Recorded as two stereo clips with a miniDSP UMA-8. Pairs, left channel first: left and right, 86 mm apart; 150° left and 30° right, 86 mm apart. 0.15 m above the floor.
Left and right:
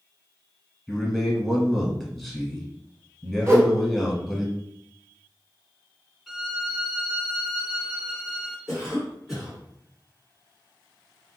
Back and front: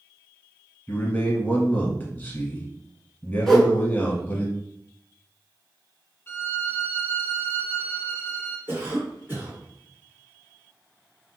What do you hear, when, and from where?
0.9 s a man speaking: straight behind, 1.1 m
3.5 s a whoosh: 130° right, 1.2 m
6.3 s a violin: straight behind, 0.5 m
8.7 s a cough: 15° right, 1.5 m